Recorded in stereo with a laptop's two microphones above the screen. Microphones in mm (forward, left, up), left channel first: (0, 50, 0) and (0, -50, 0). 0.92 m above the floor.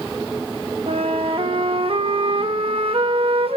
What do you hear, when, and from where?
0.9 s a flute: 70° right (ahead or behind), 0.9 m